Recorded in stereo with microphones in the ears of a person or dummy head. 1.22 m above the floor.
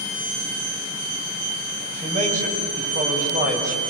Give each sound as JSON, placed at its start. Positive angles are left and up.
{"t": 1.9, "sound": "a man speaking", "side_deg": -40, "distance_m": 6.0}